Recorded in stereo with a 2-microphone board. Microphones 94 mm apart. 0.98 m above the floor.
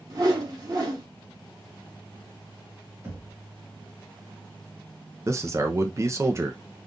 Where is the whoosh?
40° right (ahead or behind), 1.3 m.